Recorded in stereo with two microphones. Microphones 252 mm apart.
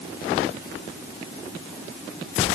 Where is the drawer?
No drawer in this recording.